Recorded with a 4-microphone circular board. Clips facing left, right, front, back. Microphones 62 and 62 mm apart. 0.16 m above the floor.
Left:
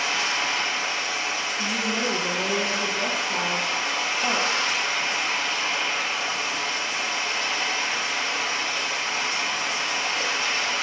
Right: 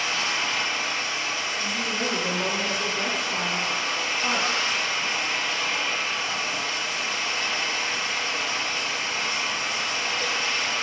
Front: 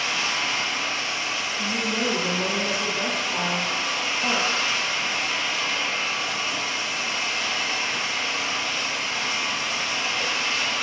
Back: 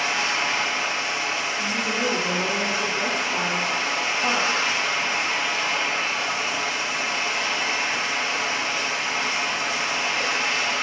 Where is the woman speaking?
90° left, 6 m.